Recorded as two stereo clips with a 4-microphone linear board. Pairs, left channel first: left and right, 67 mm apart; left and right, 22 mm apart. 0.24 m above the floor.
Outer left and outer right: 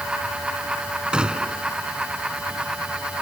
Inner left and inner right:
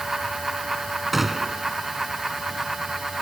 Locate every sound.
1.1 s a gunshot: 15° right (ahead or behind)